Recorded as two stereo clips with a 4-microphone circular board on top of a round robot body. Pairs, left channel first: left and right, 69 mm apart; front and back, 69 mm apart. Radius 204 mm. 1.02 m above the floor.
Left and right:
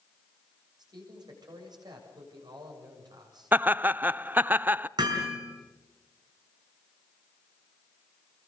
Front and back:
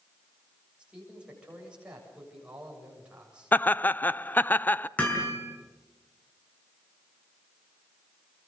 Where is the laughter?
45° right, 0.7 m.